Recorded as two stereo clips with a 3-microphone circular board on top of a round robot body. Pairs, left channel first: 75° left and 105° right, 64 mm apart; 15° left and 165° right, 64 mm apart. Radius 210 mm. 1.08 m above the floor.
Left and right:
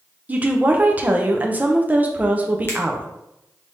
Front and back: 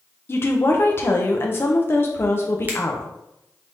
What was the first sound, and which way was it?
A woman speaking, 40° right.